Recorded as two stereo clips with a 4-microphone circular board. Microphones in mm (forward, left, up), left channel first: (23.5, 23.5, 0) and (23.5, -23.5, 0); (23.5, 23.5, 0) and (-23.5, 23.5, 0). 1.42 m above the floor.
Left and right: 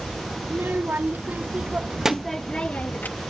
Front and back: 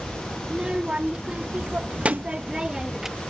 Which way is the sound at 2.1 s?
155° left.